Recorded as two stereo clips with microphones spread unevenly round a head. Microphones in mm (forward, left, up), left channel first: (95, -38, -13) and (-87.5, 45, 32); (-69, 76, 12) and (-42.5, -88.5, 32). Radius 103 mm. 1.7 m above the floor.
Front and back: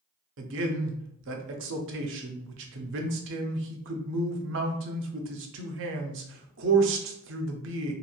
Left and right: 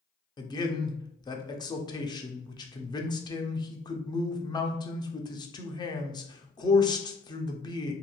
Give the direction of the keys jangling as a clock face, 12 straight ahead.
No keys jangling in this recording.